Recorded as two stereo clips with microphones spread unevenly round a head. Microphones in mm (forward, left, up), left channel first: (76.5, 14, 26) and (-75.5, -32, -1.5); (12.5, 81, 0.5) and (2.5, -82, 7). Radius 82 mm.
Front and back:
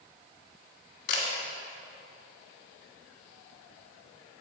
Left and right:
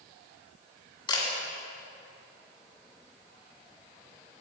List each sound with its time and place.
1.1 s a camera shutter: 25° left, 2.0 m